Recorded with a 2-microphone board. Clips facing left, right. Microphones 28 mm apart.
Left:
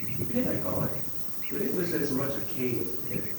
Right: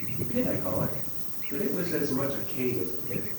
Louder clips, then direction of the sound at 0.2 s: Right 1 dB; centre (ahead or behind).